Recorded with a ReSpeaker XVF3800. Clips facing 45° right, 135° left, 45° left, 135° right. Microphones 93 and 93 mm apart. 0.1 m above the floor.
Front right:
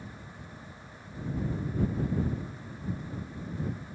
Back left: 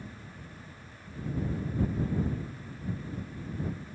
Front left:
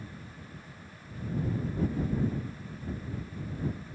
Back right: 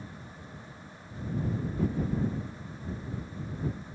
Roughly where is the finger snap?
I don't hear a finger snap.